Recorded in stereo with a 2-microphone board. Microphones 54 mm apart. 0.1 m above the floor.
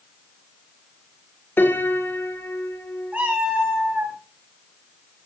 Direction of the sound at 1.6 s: 40° left (ahead or behind).